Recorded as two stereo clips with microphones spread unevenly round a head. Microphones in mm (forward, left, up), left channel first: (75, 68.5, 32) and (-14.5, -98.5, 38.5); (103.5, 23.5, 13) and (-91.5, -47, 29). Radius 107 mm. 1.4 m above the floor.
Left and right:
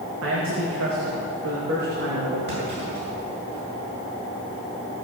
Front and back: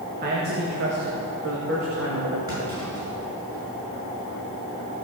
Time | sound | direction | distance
0.2 | a man speaking | 115° right | 2 m
2.5 | a clunk | 90° right | 7 m